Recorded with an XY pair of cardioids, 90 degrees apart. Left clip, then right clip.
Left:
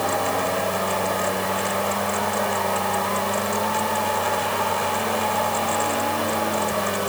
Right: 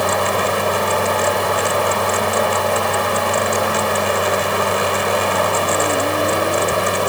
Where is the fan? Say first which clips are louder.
Right 5 dB; 60° right.